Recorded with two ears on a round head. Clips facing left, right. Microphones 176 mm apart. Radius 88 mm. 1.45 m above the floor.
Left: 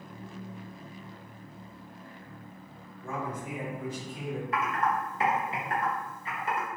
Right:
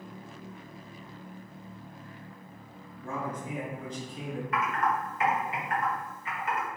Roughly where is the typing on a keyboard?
Left.